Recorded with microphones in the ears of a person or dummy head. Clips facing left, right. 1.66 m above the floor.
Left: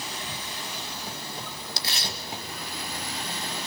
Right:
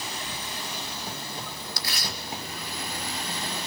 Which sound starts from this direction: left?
Tearing paper, at 1.8 s.